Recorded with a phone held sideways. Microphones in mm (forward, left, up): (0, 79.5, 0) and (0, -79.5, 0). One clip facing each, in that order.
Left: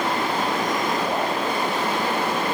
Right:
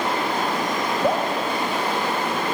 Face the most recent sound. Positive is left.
turn(degrees=-65)  # may be behind; listen again after turning